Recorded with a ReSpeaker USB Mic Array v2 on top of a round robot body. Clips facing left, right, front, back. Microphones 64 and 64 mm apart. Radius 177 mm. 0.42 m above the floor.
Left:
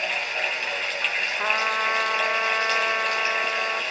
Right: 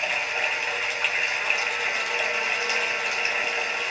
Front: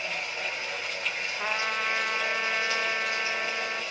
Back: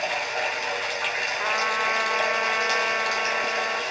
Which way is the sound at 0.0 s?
170° right.